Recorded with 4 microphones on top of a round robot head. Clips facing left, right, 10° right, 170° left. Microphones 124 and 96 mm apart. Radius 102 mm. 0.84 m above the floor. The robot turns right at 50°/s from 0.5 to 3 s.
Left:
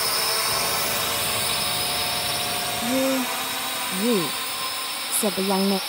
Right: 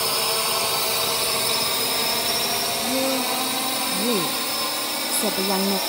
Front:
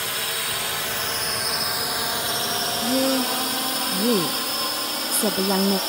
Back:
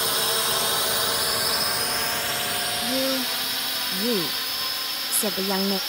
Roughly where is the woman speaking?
Ahead.